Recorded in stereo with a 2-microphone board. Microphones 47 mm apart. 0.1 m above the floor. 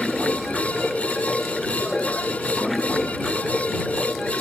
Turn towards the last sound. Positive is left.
turn(degrees=5)  # may be behind; listen again after turning